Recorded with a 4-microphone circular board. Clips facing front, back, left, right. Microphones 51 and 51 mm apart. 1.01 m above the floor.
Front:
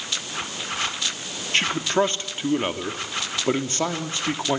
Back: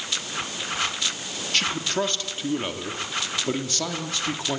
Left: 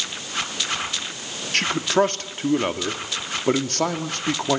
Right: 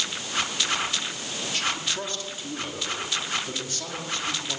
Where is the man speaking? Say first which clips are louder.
Front 4 dB, left 10 dB; 60° left, 1.9 m.